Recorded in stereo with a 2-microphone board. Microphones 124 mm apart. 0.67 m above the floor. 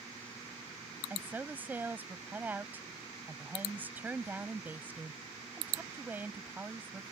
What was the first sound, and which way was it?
A woman speaking, 15° right (ahead or behind).